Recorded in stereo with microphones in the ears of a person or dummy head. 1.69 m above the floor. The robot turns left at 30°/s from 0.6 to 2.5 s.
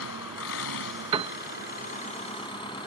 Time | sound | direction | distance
0.0 | an engine running | 85° left | ?
1.1 | a piano | 30° right (ahead or behind) | ?